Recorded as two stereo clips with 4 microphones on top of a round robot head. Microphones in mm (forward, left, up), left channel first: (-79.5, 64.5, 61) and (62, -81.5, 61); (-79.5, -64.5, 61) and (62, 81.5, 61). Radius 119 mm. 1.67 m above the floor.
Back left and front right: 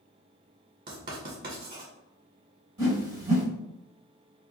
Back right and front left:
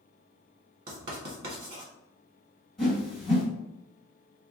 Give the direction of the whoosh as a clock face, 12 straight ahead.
1 o'clock.